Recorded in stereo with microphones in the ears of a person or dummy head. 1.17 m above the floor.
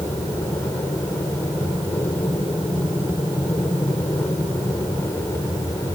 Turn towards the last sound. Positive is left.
turn(degrees=15)  # may be behind; listen again after turning